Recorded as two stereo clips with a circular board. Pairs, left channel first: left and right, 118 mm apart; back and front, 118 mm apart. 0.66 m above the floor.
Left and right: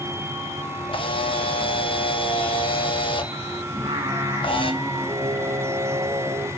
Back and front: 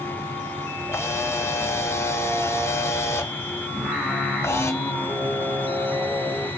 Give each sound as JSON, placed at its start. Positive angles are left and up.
{"t": 0.9, "sound": "a camera shutter", "azimuth_deg": 115, "distance_m": 0.5}
{"t": 3.7, "sound": "singing", "azimuth_deg": -85, "distance_m": 1.3}